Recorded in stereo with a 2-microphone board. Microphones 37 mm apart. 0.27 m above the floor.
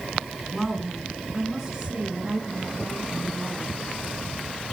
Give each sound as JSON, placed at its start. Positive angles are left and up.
{"t": 0.5, "sound": "a woman speaking", "side_deg": -5, "distance_m": 2.5}